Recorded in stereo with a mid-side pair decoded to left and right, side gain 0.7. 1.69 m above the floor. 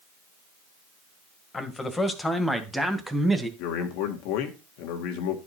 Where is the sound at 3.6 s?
70° left, 2 m.